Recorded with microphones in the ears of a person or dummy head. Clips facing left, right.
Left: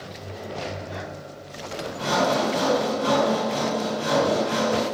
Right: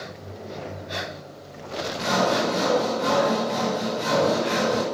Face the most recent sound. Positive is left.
turn(degrees=-50)  # may be behind; listen again after turning